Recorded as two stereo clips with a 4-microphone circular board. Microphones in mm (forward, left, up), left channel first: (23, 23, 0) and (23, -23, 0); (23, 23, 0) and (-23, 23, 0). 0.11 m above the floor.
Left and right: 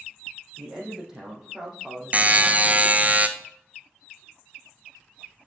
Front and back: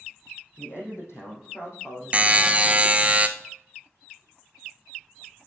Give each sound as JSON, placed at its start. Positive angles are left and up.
{"t": 0.6, "sound": "a man speaking", "azimuth_deg": -15, "distance_m": 4.0}
{"t": 2.1, "sound": "a buzzer", "azimuth_deg": -130, "distance_m": 0.8}